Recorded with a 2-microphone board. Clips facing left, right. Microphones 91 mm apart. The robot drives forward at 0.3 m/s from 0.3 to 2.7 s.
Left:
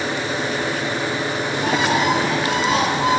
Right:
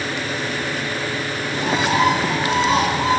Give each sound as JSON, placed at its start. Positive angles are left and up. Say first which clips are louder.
{"t": 1.5, "sound": "a bird", "louder": "right 1 dB", "side_deg": -30, "distance_m": 5.0}